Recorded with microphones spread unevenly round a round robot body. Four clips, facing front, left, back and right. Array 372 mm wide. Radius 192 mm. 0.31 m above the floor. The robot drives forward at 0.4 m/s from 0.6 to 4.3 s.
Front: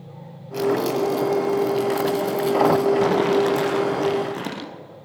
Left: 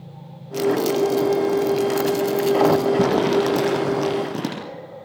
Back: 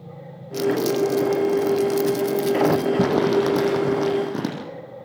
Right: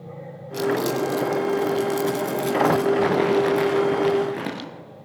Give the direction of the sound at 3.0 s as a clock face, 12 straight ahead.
7 o'clock.